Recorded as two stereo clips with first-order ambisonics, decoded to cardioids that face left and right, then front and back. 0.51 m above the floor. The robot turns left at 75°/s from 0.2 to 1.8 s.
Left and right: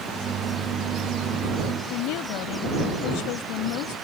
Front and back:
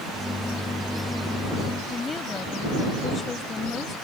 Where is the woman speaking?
75° left.